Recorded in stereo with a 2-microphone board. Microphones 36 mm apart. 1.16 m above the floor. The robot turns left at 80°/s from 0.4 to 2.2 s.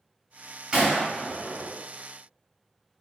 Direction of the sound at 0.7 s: 30° right (ahead or behind).